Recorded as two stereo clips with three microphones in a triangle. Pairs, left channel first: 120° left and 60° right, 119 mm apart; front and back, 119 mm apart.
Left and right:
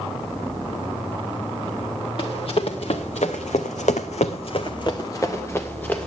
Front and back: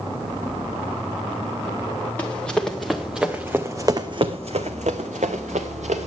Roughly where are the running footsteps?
Left.